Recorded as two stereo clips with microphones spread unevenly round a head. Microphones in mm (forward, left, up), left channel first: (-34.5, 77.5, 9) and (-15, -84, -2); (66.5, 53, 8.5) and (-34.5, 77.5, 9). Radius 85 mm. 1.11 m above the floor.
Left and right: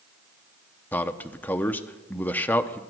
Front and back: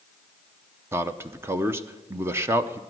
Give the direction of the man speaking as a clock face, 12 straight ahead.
6 o'clock.